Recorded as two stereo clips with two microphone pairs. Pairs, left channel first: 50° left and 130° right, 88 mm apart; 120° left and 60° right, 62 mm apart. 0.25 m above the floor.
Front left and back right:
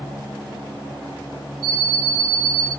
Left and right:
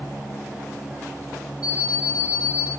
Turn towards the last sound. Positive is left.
turn(degrees=115)